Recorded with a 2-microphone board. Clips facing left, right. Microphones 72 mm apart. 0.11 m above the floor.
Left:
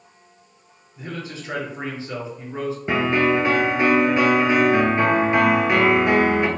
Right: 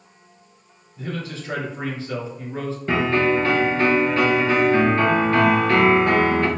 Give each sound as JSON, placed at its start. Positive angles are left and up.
{"t": 1.0, "sound": "a man speaking", "side_deg": 20, "distance_m": 1.7}
{"t": 2.9, "sound": "a piano", "side_deg": 15, "distance_m": 0.9}